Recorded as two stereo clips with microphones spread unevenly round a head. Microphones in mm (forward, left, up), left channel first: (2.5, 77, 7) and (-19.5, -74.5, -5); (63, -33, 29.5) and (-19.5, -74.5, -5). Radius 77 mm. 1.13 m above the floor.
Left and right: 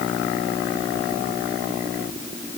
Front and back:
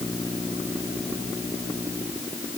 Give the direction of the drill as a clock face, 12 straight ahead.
I don't hear a drill.